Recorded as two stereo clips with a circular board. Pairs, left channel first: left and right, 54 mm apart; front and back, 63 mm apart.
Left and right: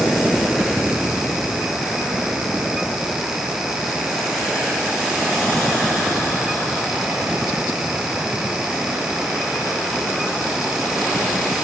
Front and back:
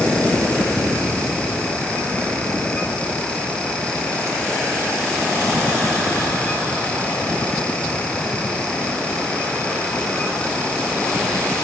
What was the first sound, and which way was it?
Only background noise.